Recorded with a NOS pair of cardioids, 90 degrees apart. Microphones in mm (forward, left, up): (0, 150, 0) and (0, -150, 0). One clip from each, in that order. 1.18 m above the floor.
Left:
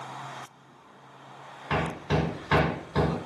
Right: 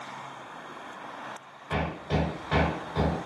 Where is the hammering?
30° left, 0.9 m.